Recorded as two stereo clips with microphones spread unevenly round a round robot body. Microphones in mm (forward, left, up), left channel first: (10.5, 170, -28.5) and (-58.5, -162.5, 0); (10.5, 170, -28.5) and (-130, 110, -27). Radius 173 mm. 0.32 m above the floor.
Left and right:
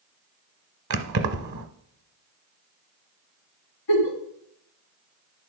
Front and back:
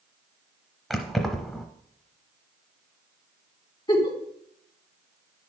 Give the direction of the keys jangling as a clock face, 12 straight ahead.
2 o'clock.